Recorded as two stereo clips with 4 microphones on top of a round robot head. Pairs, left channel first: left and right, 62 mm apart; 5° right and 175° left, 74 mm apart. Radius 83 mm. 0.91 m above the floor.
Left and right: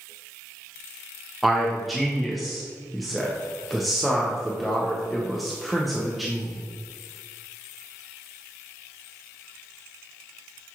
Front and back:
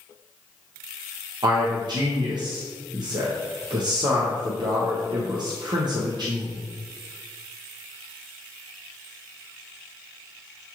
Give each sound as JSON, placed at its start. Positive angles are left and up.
{"t": 1.4, "sound": "a man speaking", "azimuth_deg": 180, "distance_m": 0.7}